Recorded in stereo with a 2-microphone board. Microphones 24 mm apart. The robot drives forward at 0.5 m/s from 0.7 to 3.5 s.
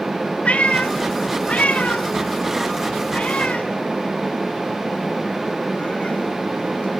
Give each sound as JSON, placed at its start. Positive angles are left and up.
{"t": 0.5, "sound": "a cat meowing", "side_deg": 70, "distance_m": 1.6}